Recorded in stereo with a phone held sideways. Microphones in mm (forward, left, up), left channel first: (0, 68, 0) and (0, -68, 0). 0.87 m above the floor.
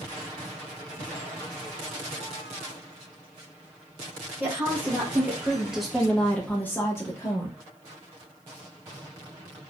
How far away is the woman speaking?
About 1.3 m.